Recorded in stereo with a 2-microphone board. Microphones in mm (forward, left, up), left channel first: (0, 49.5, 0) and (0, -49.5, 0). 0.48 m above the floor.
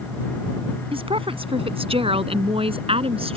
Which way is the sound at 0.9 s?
70° right (ahead or behind).